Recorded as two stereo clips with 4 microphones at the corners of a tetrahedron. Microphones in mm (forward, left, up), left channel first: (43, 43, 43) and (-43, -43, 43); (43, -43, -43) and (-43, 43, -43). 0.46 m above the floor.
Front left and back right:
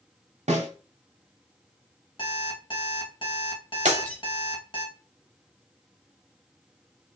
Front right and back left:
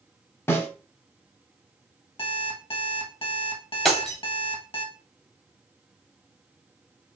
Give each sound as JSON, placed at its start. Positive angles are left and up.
{"t": 0.5, "sound": "a snare drum", "azimuth_deg": -115, "distance_m": 0.9}
{"t": 2.2, "sound": "an alarm clock", "azimuth_deg": 0, "distance_m": 1.0}
{"t": 3.9, "sound": "breaking glass", "azimuth_deg": -135, "distance_m": 1.1}